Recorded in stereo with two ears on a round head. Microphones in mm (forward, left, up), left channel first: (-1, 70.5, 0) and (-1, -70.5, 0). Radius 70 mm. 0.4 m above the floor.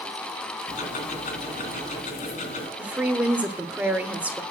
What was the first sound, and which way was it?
Ticking, 50° left (ahead or behind).